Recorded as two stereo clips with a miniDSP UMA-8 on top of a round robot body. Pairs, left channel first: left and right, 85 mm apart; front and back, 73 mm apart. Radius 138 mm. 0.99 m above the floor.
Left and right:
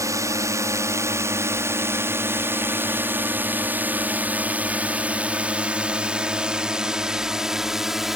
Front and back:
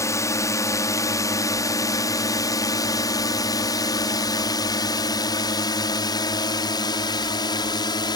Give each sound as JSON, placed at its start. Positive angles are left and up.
{"t": 0.0, "sound": "a drone", "azimuth_deg": -40}